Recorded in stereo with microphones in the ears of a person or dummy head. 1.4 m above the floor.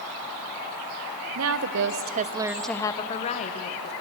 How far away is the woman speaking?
About 1.2 m.